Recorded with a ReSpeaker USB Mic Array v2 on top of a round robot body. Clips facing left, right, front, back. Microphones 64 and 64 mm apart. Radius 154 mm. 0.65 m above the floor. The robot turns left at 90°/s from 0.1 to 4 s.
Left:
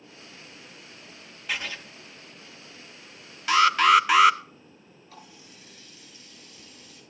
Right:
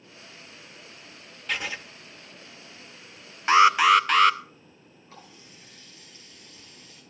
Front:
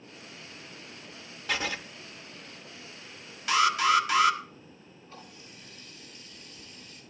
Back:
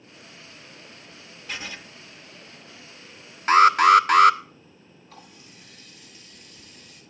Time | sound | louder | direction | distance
1.5 | writing | right 1 dB, front 5 dB | 5° left | 0.6 m
3.5 | an alarm | right 2 dB, back 9 dB | 140° right | 0.9 m
5.1 | a running tap | even, even | 150° right | 10 m